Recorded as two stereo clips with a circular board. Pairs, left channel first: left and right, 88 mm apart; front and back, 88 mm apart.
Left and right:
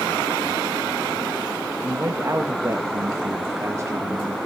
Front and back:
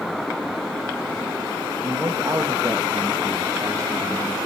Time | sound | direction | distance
1.8 | a man speaking | 140° right | 1.1 m